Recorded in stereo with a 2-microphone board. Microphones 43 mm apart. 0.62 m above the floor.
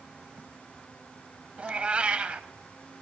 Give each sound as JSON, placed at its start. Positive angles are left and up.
{"t": 1.6, "sound": "a cat meowing", "side_deg": -25, "distance_m": 0.8}